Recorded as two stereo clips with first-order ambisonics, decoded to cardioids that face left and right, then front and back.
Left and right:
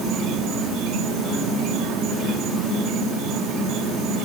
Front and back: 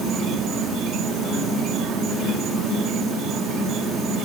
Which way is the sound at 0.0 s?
130° right.